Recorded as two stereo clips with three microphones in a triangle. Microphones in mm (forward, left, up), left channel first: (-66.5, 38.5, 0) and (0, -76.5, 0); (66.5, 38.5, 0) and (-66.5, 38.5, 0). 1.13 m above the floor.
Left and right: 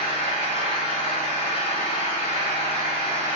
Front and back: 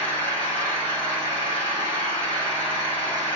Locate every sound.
0.0 s an engine running: 80° left, 1.6 m